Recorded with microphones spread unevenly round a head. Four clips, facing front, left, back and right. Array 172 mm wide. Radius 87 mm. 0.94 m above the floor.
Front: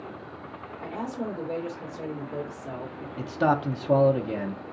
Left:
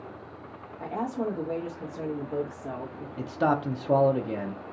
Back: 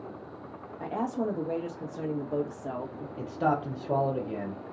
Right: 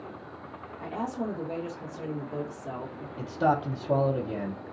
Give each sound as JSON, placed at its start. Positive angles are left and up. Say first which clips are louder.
{"t": 0.8, "sound": "a woman speaking", "louder": "left 2 dB, back 3 dB", "azimuth_deg": 155, "distance_m": 1.3}
{"t": 3.2, "sound": "a man speaking", "louder": "even, front 4 dB", "azimuth_deg": 55, "distance_m": 0.5}